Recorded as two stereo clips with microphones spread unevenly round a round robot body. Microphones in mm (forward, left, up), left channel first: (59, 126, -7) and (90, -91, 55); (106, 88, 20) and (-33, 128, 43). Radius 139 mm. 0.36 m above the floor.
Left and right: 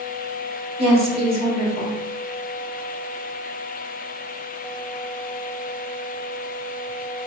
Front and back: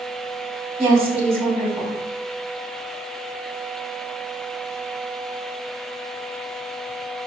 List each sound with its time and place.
0.8 s a woman speaking: 155° right, 1.4 m